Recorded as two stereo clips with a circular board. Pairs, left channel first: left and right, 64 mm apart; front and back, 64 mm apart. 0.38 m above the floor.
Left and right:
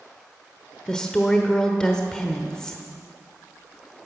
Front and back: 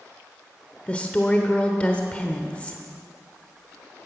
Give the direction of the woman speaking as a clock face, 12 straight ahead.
11 o'clock.